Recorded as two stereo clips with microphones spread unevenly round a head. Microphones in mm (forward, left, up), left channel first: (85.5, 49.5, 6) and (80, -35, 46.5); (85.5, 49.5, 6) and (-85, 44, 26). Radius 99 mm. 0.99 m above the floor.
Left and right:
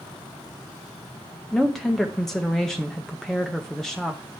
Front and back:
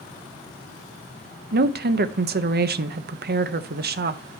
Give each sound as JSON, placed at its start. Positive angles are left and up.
{"t": 1.5, "sound": "a woman speaking", "azimuth_deg": 160, "distance_m": 0.7}